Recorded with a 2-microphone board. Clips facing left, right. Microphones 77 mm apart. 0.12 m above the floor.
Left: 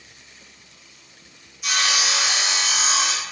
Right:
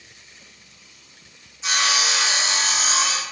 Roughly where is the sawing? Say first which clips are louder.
Right 1 dB; right.